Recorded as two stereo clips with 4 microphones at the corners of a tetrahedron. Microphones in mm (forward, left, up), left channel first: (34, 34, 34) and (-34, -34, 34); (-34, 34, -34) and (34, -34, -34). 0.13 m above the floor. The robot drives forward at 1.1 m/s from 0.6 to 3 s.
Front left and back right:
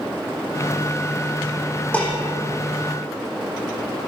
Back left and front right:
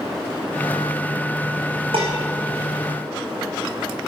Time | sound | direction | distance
1.9 | dishes clattering | 30° right | 5 m